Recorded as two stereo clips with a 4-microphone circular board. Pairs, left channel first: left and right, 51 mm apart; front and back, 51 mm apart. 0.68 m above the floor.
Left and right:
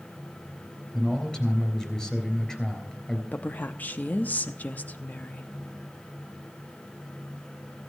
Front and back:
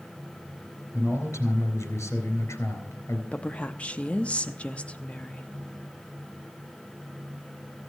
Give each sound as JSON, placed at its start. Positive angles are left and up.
{"t": 0.9, "sound": "a man speaking", "azimuth_deg": 15, "distance_m": 3.5}
{"t": 3.3, "sound": "a woman speaking", "azimuth_deg": 55, "distance_m": 0.6}